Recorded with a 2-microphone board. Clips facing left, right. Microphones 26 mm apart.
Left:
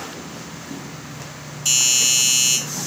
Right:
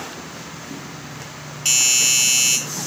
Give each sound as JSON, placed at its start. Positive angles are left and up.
{"t": 1.6, "sound": "a doorbell", "side_deg": -35, "distance_m": 4.5}